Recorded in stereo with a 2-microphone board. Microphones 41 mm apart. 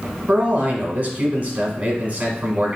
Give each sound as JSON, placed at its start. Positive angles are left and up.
{"t": 0.3, "sound": "a man speaking", "side_deg": -35, "distance_m": 1.2}